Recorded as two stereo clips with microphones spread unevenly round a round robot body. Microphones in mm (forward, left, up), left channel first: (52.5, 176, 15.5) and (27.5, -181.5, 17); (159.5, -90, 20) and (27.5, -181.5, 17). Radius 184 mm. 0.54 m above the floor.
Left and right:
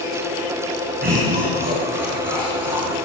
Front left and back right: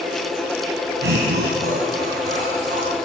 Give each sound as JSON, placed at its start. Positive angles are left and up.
{"t": 1.0, "sound": "laughter", "azimuth_deg": -160, "distance_m": 4.5}